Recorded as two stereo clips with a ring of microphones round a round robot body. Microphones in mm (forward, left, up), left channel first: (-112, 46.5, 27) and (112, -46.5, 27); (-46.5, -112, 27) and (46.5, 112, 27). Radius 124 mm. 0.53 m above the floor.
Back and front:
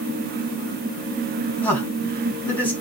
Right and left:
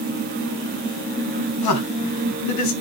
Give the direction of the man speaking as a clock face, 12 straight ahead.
4 o'clock.